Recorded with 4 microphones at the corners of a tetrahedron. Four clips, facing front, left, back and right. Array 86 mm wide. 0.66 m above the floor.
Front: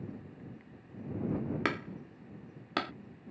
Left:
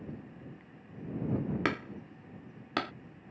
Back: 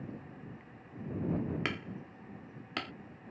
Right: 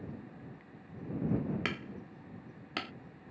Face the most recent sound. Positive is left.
turn(degrees=45)